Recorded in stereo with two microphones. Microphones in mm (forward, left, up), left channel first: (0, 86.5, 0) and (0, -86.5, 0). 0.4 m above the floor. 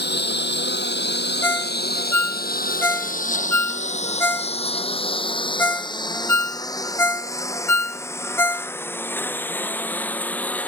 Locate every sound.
0.0 s a lawn mower: 80° left; by 10.7 s 10° left (ahead or behind)
1.4 s a ringtone: 15° left (ahead or behind)